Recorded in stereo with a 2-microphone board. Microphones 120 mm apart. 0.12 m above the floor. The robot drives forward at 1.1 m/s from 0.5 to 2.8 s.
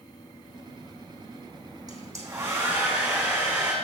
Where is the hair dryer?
30° right (ahead or behind), 1.7 m; by 3.7 s 20° right (ahead or behind), 2.5 m.